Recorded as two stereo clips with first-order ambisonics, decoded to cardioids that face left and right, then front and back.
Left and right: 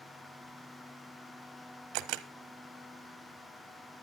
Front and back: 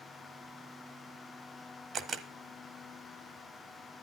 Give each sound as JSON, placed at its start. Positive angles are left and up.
{"t": 1.9, "sound": "a camera shutter", "azimuth_deg": -115, "distance_m": 1.0}